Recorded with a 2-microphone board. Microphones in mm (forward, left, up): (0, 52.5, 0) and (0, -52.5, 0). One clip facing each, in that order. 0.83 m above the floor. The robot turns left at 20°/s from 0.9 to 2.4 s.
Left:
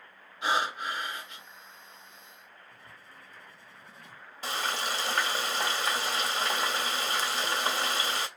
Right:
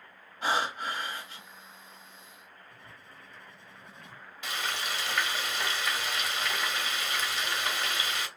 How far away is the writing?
About 1.9 m.